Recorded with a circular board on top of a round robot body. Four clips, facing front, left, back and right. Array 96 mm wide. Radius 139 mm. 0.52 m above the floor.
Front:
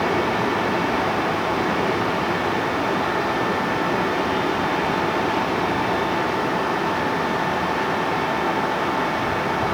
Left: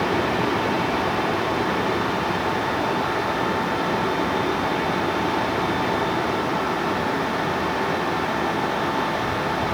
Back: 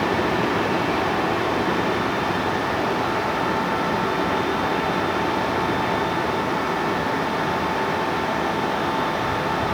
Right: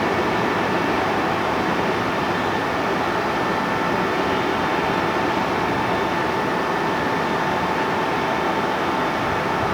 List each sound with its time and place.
Only background noise.